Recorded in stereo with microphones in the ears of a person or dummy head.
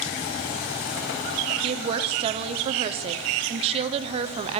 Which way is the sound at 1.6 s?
35° right (ahead or behind).